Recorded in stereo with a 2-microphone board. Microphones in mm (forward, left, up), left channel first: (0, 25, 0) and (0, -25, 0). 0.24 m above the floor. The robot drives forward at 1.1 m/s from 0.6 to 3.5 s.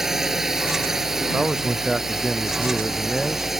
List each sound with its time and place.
0.0 s a drone: 10° right (ahead or behind); by 3.6 s 5° right (ahead or behind)
1.3 s a man speaking: 10° right (ahead or behind)